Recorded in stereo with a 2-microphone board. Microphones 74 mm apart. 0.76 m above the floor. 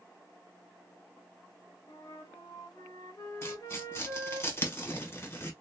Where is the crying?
No crying in this recording.